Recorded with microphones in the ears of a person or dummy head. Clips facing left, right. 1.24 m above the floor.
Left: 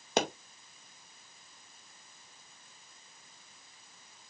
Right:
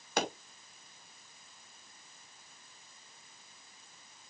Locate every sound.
0.2 s a pop: 25° left (ahead or behind), 2 m